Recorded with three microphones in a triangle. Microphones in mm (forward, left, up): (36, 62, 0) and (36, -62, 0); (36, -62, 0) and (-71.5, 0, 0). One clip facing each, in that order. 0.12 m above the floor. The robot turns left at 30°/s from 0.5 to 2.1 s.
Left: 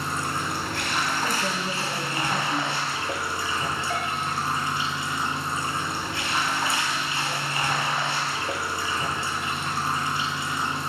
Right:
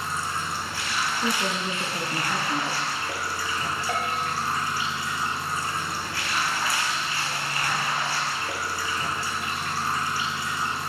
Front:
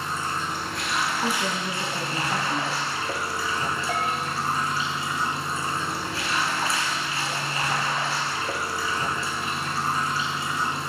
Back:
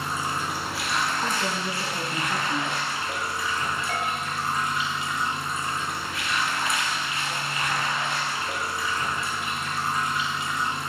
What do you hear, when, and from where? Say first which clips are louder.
0.0 s running water: left 2 dB, even; 75° left, 0.9 m; by 10.9 s 25° left, 0.9 m
1.2 s a woman speaking: even, front 1 dB; 90° right, 1.2 m; by 2.9 s 115° right, 1.2 m
3.9 s a bell: right 1 dB, front 2 dB; 90° right, 2 m